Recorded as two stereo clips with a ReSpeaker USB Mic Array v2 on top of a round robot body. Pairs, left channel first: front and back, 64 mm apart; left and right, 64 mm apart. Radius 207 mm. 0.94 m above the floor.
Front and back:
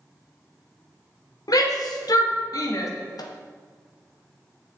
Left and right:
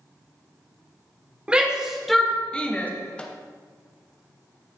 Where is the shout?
15° right, 2 m; by 2.9 s 25° left, 1.9 m.